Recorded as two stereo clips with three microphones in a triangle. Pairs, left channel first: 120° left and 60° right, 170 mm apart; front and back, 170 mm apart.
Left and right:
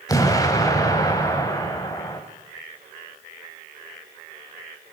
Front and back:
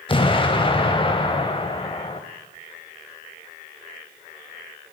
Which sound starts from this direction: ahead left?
An explosion, at 0.1 s.